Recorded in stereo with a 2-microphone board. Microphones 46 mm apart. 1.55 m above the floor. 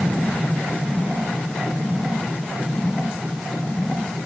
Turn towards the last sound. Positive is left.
No sound to turn to.